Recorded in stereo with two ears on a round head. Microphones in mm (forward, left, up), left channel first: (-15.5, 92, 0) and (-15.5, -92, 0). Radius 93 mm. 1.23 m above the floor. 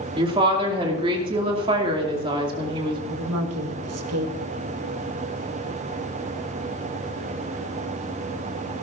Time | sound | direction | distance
0.2 | a woman speaking | 25° right (ahead or behind) | 2.5 m
3.1 | a woman speaking | 85° right | 1.6 m